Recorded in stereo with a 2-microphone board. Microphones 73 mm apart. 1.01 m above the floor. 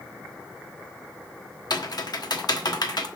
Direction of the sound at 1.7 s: 65° left (ahead or behind).